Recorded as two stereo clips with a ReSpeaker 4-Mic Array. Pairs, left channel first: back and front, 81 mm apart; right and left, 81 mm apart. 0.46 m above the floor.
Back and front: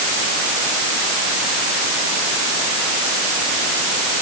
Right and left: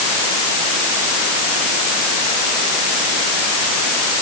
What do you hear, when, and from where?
Only background noise.